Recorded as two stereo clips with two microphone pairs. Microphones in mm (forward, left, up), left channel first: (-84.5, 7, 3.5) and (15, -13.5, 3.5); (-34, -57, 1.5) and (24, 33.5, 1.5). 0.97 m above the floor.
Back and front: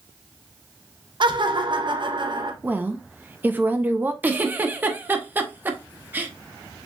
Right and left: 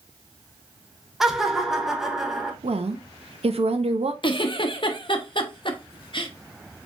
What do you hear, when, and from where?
1.2 s laughter: 30° right, 0.9 m
2.6 s a woman speaking: 60° left, 0.6 m
4.2 s a giggle: 85° right, 0.6 m